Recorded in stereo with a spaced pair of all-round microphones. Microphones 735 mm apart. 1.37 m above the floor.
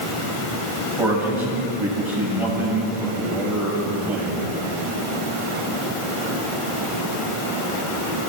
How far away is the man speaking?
About 9 m.